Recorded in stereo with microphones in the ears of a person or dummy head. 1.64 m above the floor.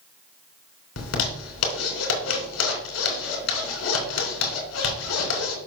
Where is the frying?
I don't hear frying.